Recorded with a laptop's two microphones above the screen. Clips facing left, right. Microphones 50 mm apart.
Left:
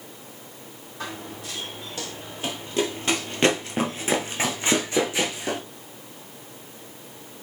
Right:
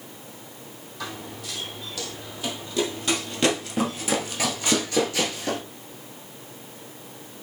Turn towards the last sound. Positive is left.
turn(degrees=15)  # may be behind; listen again after turning